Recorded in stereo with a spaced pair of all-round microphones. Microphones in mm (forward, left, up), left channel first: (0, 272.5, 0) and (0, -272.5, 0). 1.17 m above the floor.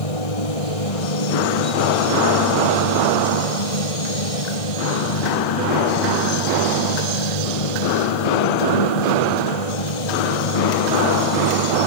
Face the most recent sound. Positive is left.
turn(degrees=85)